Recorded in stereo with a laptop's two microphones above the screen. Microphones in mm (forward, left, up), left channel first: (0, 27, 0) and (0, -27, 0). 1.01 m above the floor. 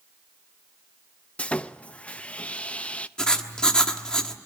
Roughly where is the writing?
Centre.